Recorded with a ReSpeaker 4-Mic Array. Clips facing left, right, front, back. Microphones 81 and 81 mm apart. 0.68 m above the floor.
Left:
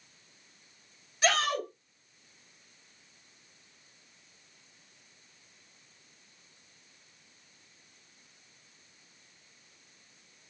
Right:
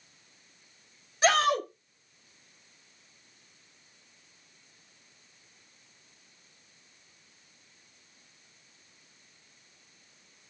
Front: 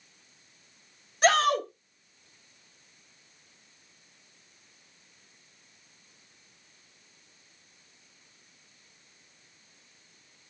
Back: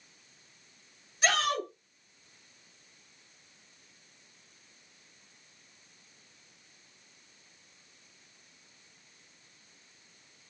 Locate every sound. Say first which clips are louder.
1.2 s a shout: right 4 dB, front 6 dB; 30° right, 2.5 m